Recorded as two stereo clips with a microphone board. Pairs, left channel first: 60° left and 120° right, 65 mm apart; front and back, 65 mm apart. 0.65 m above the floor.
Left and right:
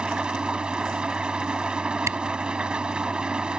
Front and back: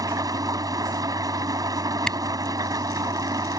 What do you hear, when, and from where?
0.0 s an engine running: 165° left
2.1 s a camera shutter: 80° right